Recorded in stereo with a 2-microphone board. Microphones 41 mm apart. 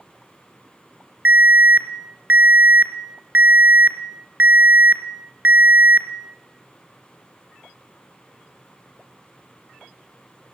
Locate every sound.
1.2 s an alarm: 40° right (ahead or behind), 1.9 m